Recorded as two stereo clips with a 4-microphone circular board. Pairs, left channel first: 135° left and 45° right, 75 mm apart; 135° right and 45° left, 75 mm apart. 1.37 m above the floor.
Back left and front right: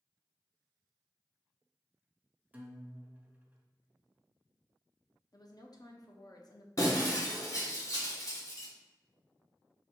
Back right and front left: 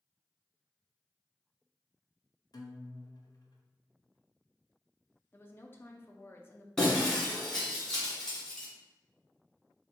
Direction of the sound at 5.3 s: 165° left.